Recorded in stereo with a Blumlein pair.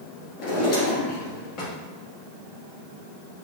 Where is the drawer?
40° left, 1.8 m.